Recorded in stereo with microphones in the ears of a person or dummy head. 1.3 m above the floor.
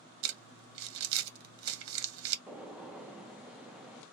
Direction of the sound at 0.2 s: 70° right (ahead or behind).